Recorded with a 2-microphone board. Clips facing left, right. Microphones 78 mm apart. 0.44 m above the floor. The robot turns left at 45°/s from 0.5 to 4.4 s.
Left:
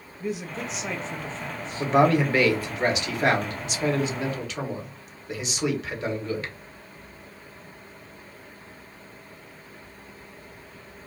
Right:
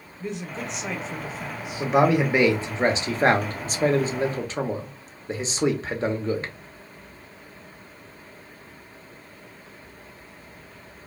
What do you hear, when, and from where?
0.2 s a man speaking: 5° left (ahead or behind), 0.8 m; by 1.9 s 15° right (ahead or behind), 0.8 m
1.8 s a man speaking: 5° right, 1.0 m; by 6.5 s 120° right, 1.0 m